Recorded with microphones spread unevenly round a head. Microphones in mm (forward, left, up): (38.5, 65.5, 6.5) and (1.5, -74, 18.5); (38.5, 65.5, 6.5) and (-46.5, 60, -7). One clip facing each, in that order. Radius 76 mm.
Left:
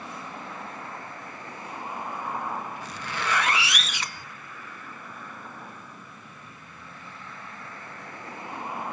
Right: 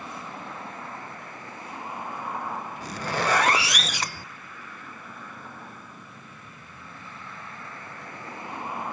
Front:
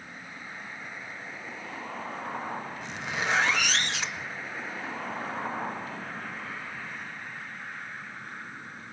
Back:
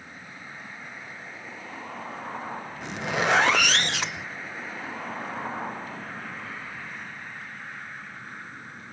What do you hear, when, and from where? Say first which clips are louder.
2.8 s a zipper: right 5 dB, back 8 dB; 145° right, 0.7 m